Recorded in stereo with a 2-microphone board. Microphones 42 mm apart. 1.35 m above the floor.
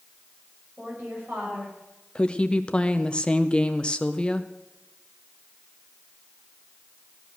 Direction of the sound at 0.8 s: 45° right (ahead or behind).